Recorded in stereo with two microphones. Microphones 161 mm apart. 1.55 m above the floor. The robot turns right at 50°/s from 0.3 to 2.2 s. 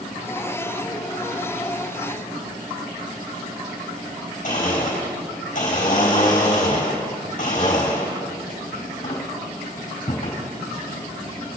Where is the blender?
60° left (ahead or behind), 4.5 m.